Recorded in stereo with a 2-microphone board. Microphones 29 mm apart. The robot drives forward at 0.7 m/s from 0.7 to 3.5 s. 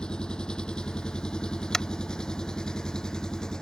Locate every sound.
0.0 s an engine running: 30° left (ahead or behind); by 3.6 s 25° left (ahead or behind)
1.7 s tapping: 20° left (ahead or behind)